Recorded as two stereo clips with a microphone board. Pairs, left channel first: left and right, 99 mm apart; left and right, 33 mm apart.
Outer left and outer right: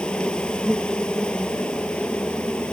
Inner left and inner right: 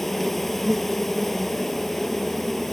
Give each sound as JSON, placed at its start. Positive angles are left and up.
{"t": 0.0, "sound": "an insect", "side_deg": 10}